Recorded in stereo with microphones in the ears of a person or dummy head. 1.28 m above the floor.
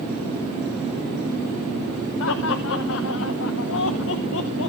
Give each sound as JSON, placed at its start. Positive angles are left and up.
{"t": 2.2, "sound": "laughter", "side_deg": 85, "distance_m": 0.9}